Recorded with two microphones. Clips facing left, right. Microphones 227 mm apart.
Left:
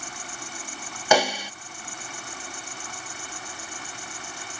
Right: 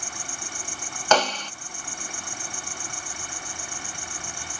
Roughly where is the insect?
Right.